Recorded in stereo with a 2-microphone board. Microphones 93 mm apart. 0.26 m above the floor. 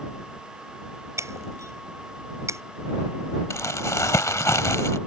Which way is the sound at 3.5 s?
35° left (ahead or behind).